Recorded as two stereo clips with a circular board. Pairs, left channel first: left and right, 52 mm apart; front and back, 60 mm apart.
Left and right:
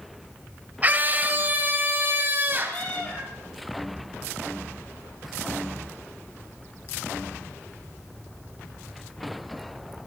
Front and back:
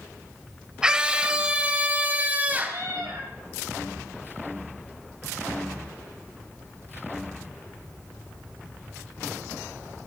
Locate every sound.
0.8 s a scream: 115° right, 1.8 m; by 2.9 s 125° right, 2.5 m
2.6 s a cat meowing: 150° left, 4 m